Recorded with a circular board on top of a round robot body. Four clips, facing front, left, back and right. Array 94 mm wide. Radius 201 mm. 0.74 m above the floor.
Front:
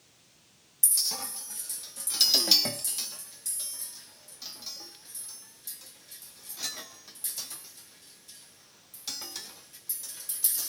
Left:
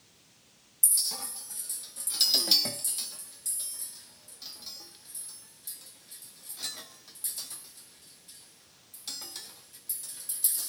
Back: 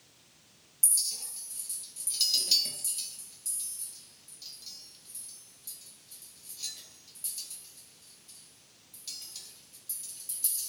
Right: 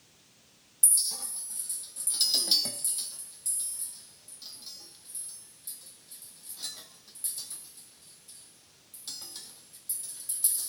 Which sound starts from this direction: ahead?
A clink, at 0.8 s.